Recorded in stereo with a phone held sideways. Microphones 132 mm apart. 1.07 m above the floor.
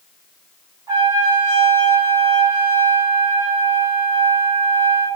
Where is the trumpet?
25° right (ahead or behind), 1.5 m.